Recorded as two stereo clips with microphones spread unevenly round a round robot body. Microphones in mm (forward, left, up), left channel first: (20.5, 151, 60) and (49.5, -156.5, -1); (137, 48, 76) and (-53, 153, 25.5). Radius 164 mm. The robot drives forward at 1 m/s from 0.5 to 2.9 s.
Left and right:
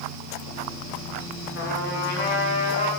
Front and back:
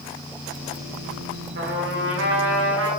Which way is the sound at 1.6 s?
155° left.